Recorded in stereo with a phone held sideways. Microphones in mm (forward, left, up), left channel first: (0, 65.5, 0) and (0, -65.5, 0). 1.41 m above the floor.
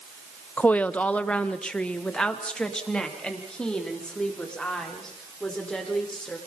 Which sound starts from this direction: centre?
A woman speaking, at 0.6 s.